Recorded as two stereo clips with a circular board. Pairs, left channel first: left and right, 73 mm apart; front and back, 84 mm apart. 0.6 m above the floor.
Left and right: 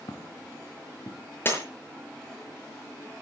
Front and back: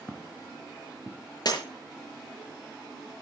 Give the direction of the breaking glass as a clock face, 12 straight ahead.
11 o'clock.